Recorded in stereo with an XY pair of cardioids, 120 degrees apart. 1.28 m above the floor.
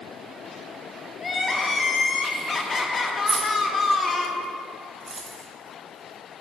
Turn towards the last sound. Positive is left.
turn(degrees=-25)